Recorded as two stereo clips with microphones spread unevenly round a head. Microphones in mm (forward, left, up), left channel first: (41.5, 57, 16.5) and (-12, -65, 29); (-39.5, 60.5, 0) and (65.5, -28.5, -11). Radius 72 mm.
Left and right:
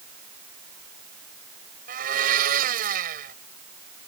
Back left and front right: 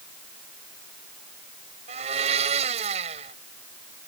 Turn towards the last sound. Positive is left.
turn(degrees=-90)